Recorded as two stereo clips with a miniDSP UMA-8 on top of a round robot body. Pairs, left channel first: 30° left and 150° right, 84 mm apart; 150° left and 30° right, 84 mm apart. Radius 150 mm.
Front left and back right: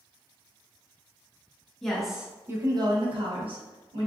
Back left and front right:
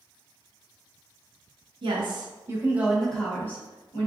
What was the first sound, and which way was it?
A woman speaking, 50° right.